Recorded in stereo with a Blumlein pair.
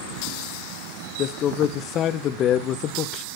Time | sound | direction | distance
1.2 | a man speaking | 30° left | 0.6 m